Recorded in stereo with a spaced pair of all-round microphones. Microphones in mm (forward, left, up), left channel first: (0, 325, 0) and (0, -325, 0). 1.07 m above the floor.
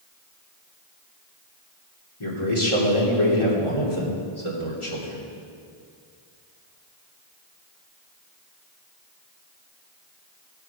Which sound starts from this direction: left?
A man speaking, at 2.2 s.